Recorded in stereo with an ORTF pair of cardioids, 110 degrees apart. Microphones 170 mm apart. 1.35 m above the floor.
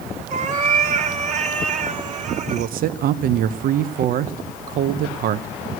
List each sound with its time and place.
0.3 s a cat meowing: 45° right, 1.7 m
2.5 s a man speaking: 55° right, 0.9 m